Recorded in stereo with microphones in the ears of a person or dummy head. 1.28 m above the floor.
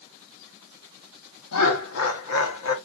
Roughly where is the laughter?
Left.